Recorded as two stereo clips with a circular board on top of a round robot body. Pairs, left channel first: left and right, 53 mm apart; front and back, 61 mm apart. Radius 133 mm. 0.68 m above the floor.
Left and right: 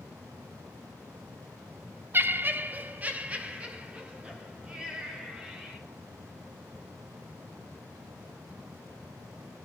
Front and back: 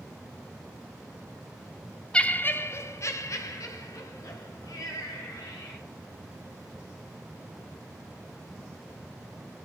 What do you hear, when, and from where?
2.1 s laughter: 70° right, 0.7 m; by 5.8 s 20° right, 3.5 m